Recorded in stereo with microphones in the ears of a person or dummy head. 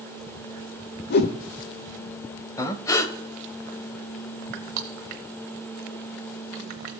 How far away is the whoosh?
About 0.8 m.